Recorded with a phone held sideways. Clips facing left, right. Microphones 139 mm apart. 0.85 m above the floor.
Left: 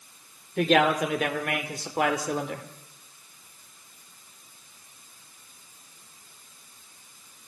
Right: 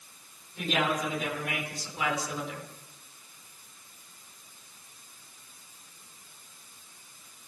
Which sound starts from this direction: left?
A man speaking, at 0.6 s.